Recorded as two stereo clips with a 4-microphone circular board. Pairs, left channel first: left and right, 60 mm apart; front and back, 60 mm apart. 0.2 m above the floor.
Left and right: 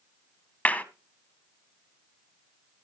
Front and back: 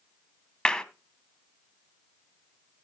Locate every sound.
0.7 s a clap: 60° left, 1.0 m